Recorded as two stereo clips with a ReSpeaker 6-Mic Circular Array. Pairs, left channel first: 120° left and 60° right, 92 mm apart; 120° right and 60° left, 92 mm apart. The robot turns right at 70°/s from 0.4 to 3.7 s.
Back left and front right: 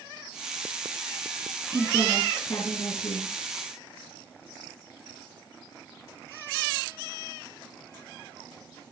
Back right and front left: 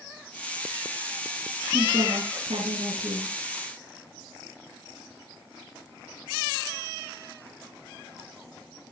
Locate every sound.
1.7 s a woman speaking: straight ahead, 4.5 m; by 3.3 s 110° left, 4.5 m